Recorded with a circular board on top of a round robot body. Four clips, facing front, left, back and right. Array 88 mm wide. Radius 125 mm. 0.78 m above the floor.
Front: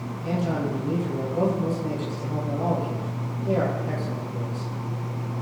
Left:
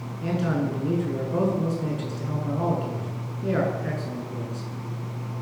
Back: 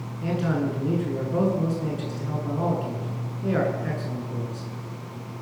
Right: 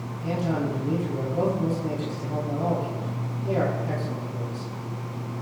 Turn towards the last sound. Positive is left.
turn(degrees=135)